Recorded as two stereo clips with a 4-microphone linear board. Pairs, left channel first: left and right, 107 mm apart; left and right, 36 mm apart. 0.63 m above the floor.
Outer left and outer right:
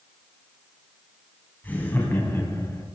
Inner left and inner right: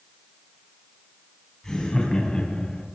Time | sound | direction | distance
1.6 | laughter | 15° left (ahead or behind) | 5 m